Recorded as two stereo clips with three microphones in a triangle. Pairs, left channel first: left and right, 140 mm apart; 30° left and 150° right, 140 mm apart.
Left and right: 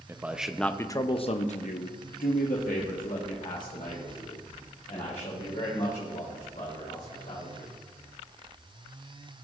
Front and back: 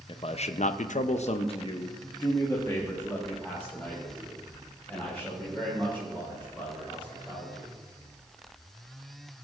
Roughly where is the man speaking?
Ahead.